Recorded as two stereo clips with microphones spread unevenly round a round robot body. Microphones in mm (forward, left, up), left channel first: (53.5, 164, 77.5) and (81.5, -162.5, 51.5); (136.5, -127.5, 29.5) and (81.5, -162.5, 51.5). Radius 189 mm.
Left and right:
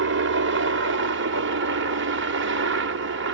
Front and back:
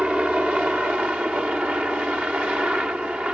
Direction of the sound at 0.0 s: 70° right.